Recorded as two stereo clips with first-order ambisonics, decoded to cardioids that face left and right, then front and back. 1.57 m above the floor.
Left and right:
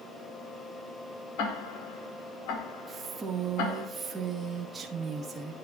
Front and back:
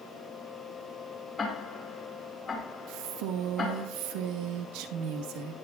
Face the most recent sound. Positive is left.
turn(degrees=-165)